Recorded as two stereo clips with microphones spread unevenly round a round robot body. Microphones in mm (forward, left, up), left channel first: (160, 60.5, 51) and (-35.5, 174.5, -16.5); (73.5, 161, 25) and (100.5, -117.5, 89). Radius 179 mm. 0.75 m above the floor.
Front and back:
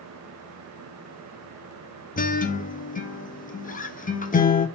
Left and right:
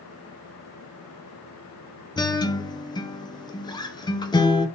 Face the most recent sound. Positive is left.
turn(degrees=35)